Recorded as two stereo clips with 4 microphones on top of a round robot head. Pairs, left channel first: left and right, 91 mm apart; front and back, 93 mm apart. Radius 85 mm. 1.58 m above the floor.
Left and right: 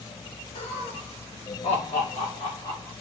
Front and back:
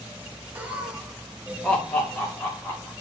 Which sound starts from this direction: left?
Laughter, at 0.6 s.